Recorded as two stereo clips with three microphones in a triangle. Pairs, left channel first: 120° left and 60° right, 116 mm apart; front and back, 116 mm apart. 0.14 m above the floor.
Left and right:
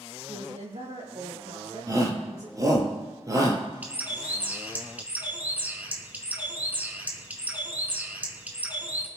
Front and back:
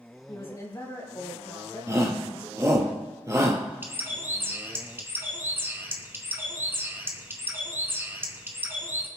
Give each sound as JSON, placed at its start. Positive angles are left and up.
{"t": 0.3, "sound": "a woman speaking", "azimuth_deg": -60, "distance_m": 5.0}
{"t": 1.9, "sound": "a shout", "azimuth_deg": -120, "distance_m": 2.5}
{"t": 3.8, "sound": "a bird", "azimuth_deg": -125, "distance_m": 1.7}